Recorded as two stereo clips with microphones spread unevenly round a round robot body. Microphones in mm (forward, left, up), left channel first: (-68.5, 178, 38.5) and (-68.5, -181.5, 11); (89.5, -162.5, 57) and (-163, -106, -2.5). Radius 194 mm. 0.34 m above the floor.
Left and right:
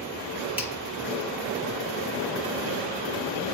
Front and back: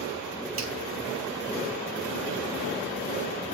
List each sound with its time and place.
0.6 s a finger snap: 175° right, 2.5 m